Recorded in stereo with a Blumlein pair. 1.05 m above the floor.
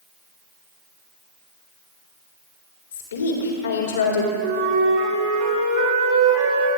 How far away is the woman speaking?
About 2.5 m.